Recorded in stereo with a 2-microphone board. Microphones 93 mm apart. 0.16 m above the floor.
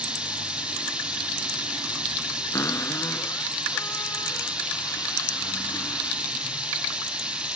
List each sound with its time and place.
0.0 s running water: 10° right (ahead or behind), 3 m
2.5 s a cupboard door: 35° left (ahead or behind), 1.4 m